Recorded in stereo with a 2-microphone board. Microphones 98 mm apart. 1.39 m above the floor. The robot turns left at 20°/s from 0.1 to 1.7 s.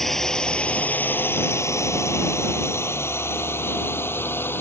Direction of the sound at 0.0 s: Centre (ahead or behind).